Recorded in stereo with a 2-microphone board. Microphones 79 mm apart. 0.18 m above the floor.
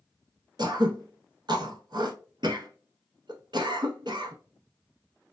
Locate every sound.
0.6 s throat clearing: 70° right (ahead or behind), 0.5 m